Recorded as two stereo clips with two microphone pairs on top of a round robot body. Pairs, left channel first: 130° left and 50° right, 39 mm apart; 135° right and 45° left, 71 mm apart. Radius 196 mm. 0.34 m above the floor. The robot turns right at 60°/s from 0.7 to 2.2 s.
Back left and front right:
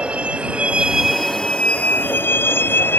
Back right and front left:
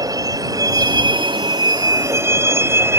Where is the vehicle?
10° left; by 3.0 s 100° left.